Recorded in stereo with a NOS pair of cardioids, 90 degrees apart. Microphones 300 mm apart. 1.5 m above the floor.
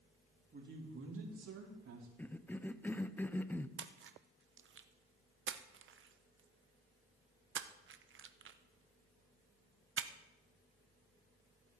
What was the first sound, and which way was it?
A man speaking, 30° right.